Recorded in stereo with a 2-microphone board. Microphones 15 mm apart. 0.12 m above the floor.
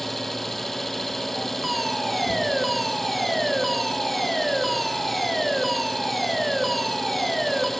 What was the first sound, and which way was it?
An engine running, 10° left (ahead or behind).